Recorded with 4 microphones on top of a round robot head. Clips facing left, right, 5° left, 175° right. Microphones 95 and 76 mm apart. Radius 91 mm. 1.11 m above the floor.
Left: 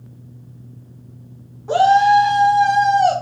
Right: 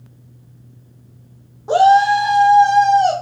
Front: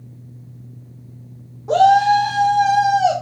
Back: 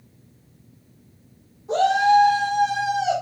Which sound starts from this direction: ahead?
A shout, at 1.7 s.